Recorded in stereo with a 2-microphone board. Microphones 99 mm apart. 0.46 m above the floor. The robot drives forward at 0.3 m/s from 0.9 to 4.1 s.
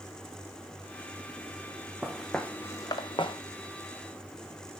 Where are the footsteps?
5° right (ahead or behind), 1.4 m; by 3.4 s 65° left (ahead or behind), 1.2 m.